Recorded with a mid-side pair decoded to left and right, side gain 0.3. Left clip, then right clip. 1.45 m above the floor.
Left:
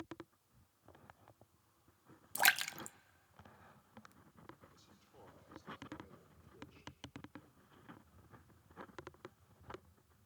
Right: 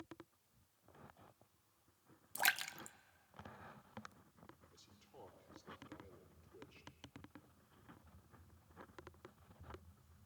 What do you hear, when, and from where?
2.4 s a splash: 50° left, 0.6 m
4.7 s a man speaking: 40° right, 6 m